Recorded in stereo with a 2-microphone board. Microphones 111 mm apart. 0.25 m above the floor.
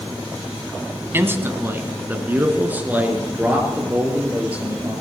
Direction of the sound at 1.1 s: 20° right (ahead or behind).